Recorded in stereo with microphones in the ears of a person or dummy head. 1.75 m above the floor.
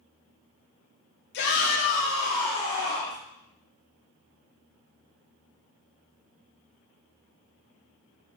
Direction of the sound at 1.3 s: 70° left (ahead or behind).